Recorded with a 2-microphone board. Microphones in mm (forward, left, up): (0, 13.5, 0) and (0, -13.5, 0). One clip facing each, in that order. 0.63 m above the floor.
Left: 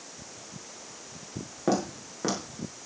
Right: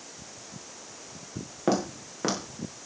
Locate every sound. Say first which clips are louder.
1.7 s footsteps: right 1 dB; 25° right (ahead or behind), 4 m